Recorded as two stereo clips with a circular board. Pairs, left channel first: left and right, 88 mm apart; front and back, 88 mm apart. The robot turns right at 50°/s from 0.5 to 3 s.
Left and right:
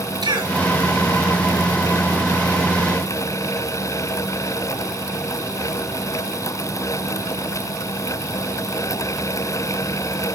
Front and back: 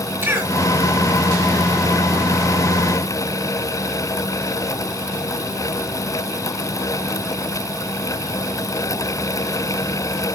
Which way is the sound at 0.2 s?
120° right.